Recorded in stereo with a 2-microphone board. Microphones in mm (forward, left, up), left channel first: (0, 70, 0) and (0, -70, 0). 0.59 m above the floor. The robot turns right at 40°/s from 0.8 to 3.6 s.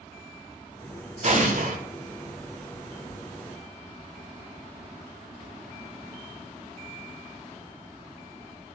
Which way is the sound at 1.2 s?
50° right (ahead or behind).